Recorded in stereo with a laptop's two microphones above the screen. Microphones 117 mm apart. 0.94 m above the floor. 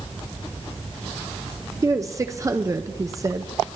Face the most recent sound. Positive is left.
turn(degrees=-30)  # may be behind; listen again after turning